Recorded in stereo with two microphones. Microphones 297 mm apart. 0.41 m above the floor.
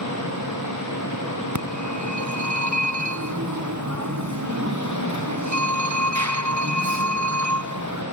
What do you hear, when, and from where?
0.0 s an engine running: 75° left (ahead or behind), 9 m
1.6 s a phone ringing: 70° right (ahead or behind), 2.5 m